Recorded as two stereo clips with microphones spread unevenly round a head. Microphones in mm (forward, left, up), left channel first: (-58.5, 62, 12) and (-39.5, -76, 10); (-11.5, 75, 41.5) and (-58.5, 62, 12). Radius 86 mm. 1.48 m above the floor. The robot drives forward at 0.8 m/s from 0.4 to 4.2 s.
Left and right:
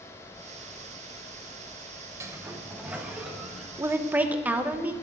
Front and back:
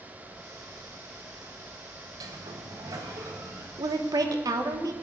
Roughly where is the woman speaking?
Behind right.